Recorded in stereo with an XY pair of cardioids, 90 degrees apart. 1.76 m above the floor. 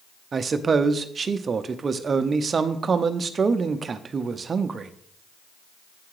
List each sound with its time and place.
0.3 s a man speaking: 45° right, 0.6 m